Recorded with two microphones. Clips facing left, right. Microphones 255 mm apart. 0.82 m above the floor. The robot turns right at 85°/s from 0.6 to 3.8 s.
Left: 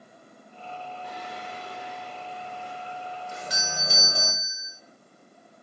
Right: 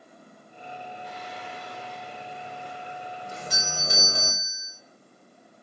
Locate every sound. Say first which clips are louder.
1.0 s singing: left 1 dB; 95° left, 3 m; by 4.3 s 30° right, 3 m
3.3 s a doorbell: even; 140° right, 4 m; by 4.7 s 100° right, 4 m